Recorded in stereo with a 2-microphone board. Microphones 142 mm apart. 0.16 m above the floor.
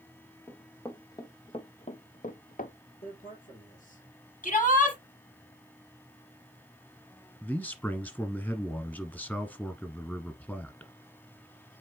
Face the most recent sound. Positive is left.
turn(degrees=10)  # may be behind; listen again after turning